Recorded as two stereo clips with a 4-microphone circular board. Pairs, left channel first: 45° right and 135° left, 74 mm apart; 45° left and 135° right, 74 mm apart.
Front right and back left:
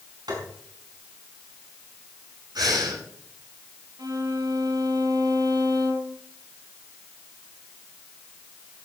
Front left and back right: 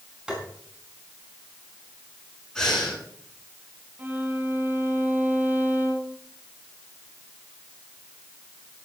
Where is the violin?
160° left, 2.0 m.